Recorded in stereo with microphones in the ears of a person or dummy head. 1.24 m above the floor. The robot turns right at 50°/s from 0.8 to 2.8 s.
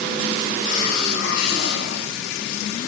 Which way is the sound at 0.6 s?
55° left.